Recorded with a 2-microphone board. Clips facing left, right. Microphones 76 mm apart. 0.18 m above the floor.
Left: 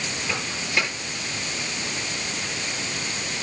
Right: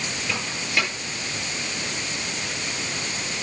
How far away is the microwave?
About 4 m.